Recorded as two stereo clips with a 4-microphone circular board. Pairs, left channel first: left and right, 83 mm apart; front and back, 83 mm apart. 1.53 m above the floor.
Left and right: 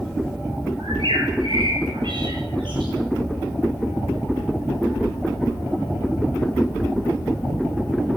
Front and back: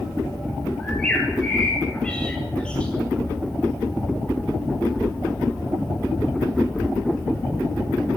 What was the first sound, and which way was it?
A bird, 75° right.